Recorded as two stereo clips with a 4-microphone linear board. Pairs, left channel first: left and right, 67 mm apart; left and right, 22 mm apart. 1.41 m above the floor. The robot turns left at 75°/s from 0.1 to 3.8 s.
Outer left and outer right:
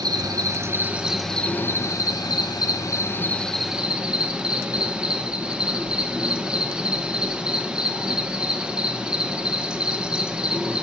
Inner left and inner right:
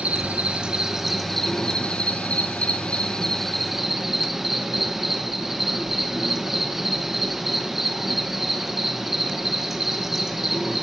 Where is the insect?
95° right, 1.9 m; by 10.8 s 15° right, 1.9 m.